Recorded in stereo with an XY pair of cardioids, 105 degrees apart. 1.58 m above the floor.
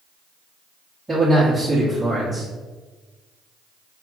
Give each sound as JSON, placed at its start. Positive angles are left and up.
{"t": 1.1, "sound": "a man speaking", "azimuth_deg": -15, "distance_m": 1.2}